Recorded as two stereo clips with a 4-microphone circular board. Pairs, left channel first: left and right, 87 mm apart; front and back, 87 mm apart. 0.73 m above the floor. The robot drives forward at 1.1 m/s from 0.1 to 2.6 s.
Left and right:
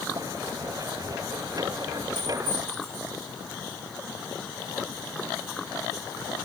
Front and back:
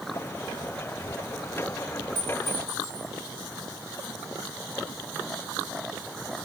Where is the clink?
75° right, 7 m; by 3.1 s 80° right, 7 m.